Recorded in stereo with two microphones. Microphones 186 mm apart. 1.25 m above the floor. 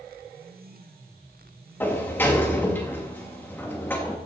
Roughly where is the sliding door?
Centre.